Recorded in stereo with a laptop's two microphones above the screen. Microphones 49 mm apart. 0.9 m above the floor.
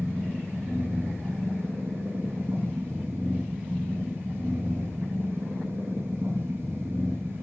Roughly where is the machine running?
Right.